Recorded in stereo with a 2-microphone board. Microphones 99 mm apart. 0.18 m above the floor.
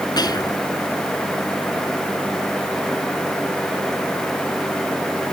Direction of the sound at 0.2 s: 45° left (ahead or behind).